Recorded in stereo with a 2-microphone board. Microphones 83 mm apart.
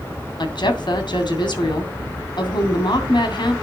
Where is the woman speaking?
65° left (ahead or behind), 2.5 m.